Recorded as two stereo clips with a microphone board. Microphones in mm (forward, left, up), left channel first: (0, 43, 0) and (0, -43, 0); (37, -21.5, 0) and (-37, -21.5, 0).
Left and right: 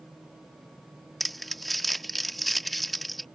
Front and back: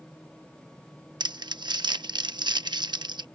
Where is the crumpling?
Straight behind.